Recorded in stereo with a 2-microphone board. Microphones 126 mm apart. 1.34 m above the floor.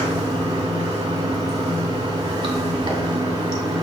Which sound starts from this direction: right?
Running water, at 0.0 s.